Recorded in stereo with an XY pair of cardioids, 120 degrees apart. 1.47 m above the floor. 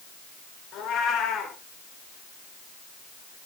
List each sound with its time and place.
0.7 s a cat meowing: 65° left, 4.5 m